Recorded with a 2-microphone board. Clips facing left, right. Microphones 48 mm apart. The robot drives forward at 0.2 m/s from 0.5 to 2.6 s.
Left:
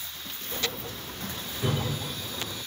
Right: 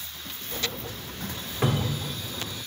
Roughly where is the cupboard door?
Right.